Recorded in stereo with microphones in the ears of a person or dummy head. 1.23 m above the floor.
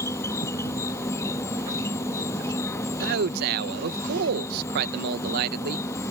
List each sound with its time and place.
0.0 s an insect: 15° left (ahead or behind)
3.0 s a man speaking: 55° right (ahead or behind)